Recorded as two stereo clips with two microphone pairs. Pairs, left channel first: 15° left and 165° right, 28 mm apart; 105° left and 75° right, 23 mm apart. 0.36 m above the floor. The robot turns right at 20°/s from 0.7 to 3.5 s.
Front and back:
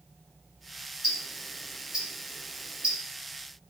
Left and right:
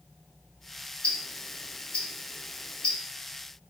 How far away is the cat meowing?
I don't hear a cat meowing.